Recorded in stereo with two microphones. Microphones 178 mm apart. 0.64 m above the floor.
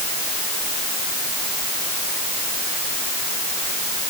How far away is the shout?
I don't hear a shout.